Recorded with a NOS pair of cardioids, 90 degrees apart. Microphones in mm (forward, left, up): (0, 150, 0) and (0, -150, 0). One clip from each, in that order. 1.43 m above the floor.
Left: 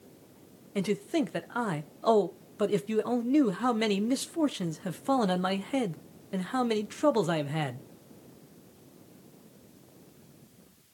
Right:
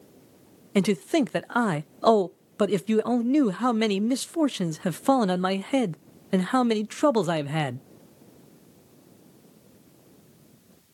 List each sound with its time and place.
0.8 s a man speaking: 45° right, 0.6 m